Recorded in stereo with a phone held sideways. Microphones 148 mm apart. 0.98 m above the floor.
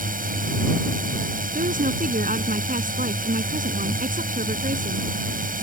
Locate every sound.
0.0 s a drone: 75° right (ahead or behind)
1.6 s a woman speaking: 70° right (ahead or behind)